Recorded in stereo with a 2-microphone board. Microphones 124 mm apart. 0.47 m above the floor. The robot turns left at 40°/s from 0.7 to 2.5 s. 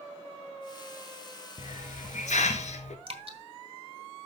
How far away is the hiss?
About 1.4 m.